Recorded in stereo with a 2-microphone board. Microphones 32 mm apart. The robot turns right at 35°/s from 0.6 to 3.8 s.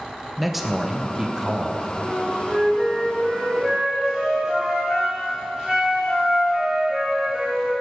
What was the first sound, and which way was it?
A man speaking, 165° right.